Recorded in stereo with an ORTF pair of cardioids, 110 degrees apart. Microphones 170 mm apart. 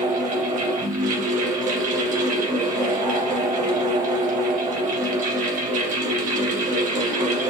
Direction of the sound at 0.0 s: 50° right.